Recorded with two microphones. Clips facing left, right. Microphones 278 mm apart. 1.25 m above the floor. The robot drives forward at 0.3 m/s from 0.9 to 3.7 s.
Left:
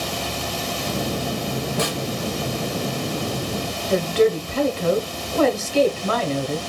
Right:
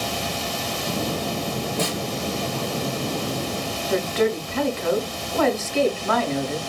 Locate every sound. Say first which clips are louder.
1.8 s a snare drum: left 1 dB; 75° left (ahead or behind), 0.9 m
3.9 s a woman speaking: left 4 dB; 40° left (ahead or behind), 0.7 m